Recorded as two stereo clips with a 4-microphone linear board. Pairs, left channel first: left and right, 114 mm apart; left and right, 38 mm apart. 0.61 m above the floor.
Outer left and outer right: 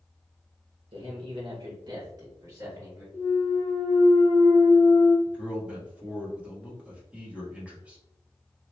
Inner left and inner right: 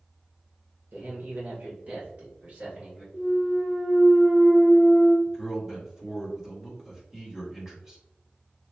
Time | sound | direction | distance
0.9 | a man speaking | 55° right (ahead or behind) | 1.6 m
3.1 | a clunk | 20° left (ahead or behind) | 0.9 m
5.2 | a man speaking | 10° right (ahead or behind) | 1.2 m